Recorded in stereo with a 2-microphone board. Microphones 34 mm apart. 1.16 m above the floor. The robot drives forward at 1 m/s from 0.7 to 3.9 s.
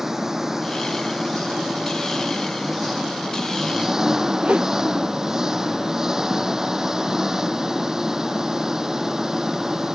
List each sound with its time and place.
0.0 s an engine running: 15° right (ahead or behind); by 10.0 s 20° right (ahead or behind)
4.4 s a whoosh: 40° right (ahead or behind)